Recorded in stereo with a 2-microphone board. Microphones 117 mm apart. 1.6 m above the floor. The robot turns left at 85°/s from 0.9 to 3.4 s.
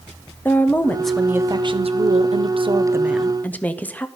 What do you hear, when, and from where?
0.5 s a woman speaking: 20° left, 0.6 m; by 4.1 s 165° left, 0.6 m